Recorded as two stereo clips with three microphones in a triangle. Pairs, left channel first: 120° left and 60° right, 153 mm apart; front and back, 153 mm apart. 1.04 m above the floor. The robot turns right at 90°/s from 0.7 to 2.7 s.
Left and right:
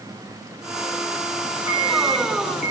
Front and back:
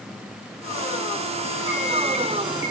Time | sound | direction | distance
1.7 | an alarm clock | 135° right | 3 m